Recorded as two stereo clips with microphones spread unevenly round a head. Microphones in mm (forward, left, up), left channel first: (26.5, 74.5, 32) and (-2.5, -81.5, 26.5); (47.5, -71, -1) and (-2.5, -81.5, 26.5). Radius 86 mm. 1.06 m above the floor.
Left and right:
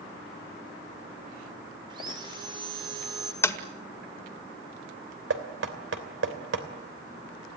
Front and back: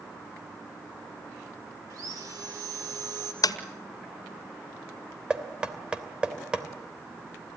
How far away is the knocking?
About 3 m.